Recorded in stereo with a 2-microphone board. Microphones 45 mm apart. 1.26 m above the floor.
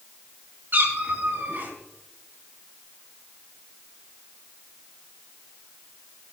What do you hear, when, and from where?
0.7 s a cat meowing: 45° right (ahead or behind), 3.5 m